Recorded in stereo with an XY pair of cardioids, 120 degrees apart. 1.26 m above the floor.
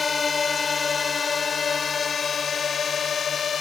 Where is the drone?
30° left; by 3.6 s 45° left.